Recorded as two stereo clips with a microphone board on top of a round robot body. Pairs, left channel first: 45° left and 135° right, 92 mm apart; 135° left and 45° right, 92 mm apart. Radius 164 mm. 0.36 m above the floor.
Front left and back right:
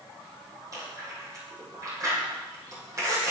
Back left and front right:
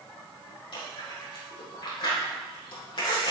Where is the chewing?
170° left, 6 m.